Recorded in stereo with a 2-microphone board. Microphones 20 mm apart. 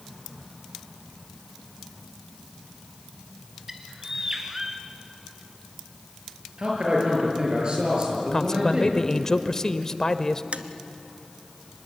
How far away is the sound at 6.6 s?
About 7.5 m.